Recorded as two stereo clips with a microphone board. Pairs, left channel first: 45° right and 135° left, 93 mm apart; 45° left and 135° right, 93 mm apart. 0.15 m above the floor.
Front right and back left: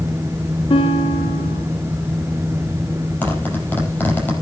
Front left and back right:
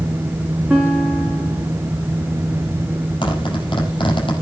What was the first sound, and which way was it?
A guitar, 60° right.